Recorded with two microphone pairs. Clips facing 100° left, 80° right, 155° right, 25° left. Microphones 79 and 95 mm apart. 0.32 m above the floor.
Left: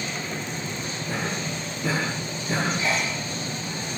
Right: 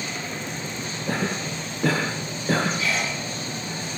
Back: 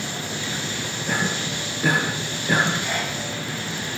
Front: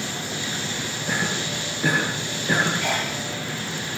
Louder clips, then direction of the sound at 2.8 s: Even, front 1 dB; 35° left.